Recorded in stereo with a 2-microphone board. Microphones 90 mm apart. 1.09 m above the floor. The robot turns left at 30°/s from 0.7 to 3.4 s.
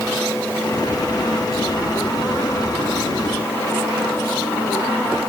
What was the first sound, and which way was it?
Only background noise.